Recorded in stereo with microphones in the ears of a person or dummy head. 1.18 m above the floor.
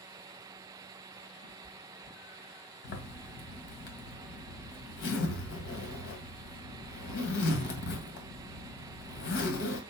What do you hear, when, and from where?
1.4 s a cat meowing: 50° left (ahead or behind), 3 m; by 2.6 s 65° left (ahead or behind), 3 m
2.8 s a zipper: 65° left (ahead or behind), 2.5 m